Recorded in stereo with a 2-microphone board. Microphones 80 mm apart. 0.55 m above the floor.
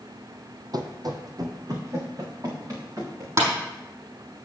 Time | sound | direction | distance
0.7 | running footsteps | 60° right (ahead or behind) | 1.1 m
3.4 | tapping | 40° right (ahead or behind) | 4.5 m